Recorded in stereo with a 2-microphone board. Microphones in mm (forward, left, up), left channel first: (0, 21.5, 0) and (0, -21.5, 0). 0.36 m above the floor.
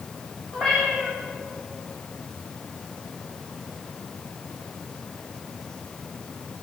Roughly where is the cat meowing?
Centre.